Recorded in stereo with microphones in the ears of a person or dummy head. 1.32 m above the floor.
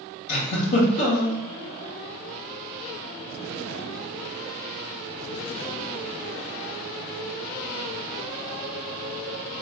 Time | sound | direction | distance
0.3 | a giggle | 40° left (ahead or behind) | 1.9 m